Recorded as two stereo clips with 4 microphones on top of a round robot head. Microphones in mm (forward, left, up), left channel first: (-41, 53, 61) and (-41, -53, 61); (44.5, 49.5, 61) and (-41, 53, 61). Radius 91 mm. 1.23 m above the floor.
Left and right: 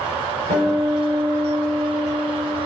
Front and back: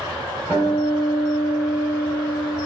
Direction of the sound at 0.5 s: 75° right.